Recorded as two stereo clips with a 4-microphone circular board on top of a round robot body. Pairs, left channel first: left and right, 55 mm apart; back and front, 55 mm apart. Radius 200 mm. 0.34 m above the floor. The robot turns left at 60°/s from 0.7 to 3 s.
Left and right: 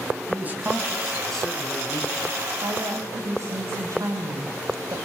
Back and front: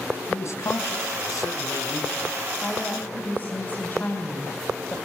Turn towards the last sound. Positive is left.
turn(degrees=-120)